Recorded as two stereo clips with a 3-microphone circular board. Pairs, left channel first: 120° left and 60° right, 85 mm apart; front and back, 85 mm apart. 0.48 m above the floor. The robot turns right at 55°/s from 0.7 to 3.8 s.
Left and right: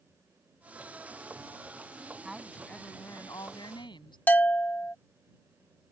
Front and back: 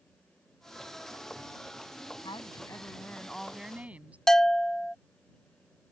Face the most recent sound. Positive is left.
turn(degrees=75)